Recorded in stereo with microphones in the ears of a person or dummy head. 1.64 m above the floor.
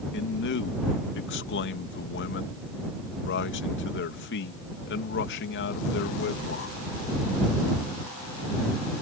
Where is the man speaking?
50° left (ahead or behind).